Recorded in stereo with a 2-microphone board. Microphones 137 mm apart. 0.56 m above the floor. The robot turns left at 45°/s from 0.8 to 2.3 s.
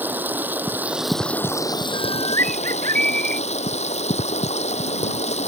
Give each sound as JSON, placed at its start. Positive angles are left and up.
{"t": 0.0, "sound": "running water", "azimuth_deg": -165}
{"t": 1.9, "sound": "a bird", "side_deg": -80}